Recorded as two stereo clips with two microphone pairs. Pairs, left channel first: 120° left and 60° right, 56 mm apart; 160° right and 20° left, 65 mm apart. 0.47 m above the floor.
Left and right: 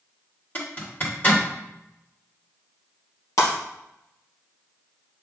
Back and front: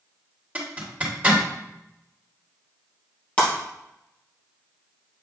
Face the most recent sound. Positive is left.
turn(degrees=130)